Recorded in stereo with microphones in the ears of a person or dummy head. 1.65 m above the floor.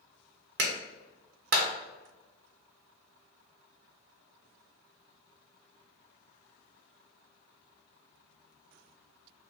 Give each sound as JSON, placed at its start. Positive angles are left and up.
{"t": 0.6, "sound": "a clap", "side_deg": -50, "distance_m": 0.6}